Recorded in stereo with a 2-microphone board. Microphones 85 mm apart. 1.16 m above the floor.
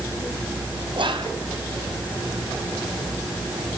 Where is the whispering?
70° right (ahead or behind), 0.8 m.